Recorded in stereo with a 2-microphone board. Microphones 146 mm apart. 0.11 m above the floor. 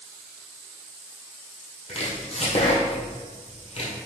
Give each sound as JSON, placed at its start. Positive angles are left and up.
{"t": 1.9, "sound": "chopping", "side_deg": 50, "distance_m": 1.8}